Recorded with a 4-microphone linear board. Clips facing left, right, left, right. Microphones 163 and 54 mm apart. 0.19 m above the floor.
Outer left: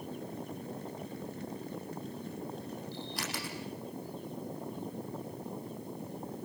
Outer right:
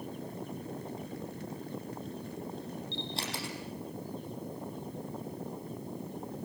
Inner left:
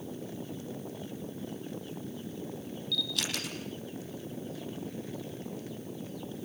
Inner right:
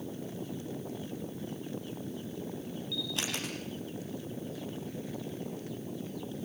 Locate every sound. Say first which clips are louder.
2.9 s a camera shutter: outer right 1 dB, inner left 2 dB; 30° right (ahead or behind), 6 m